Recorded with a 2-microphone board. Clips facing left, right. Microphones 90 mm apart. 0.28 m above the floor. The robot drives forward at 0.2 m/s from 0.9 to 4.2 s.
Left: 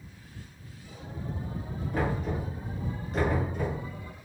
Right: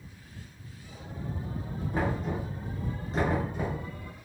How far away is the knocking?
About 1.7 m.